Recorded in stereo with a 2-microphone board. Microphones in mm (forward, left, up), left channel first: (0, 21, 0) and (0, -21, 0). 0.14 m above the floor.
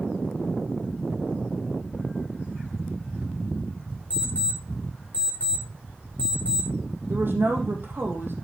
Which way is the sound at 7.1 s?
60° right (ahead or behind).